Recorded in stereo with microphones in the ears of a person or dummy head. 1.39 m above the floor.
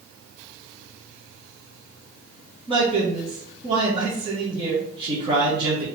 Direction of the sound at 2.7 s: 25° right (ahead or behind).